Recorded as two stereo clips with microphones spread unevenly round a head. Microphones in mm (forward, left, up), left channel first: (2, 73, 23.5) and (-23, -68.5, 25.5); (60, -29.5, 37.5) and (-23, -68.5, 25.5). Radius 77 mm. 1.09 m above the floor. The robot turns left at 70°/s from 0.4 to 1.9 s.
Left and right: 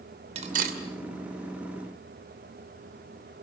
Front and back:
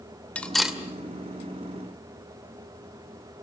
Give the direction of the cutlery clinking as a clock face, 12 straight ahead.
2 o'clock.